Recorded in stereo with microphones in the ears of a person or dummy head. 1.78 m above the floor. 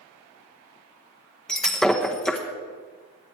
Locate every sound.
1.5 s breaking glass: 5° left (ahead or behind), 0.9 m